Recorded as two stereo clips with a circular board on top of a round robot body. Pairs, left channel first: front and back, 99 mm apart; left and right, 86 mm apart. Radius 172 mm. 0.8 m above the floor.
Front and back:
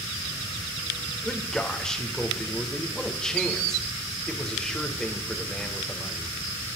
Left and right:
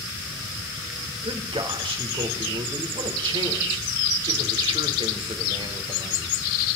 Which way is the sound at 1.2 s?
85° right.